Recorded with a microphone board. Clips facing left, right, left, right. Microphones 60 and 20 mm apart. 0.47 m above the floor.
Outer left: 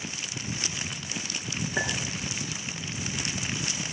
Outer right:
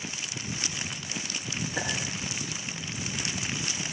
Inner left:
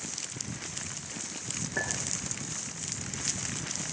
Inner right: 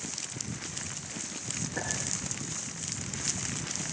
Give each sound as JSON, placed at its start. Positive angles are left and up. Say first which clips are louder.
{"t": 1.8, "sound": "a clink", "louder": "outer left 3 dB, inner left 3 dB", "side_deg": 25, "distance_m": 5.0}